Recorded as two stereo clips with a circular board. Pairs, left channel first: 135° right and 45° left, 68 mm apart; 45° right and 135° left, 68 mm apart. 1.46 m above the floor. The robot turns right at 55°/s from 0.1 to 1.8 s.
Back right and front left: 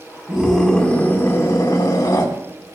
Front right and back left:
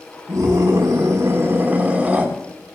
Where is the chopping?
No chopping in this recording.